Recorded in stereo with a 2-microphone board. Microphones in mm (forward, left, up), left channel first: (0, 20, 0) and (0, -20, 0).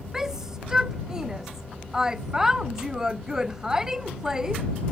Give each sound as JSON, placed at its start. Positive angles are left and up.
{"t": 0.1, "sound": "a shout", "side_deg": -15}